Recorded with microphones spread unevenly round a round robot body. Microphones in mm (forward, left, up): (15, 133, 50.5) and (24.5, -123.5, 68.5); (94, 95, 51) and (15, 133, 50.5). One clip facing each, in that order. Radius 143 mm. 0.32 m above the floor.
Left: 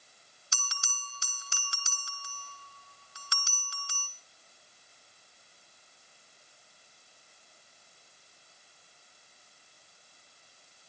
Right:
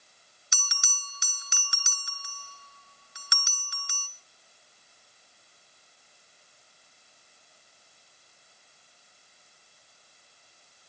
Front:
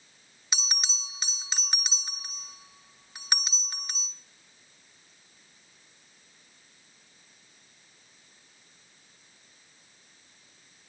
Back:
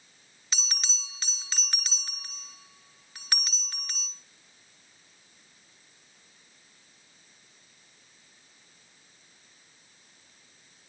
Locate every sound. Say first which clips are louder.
0.5 s a bell: even, front 2 dB; 45° right, 1.5 m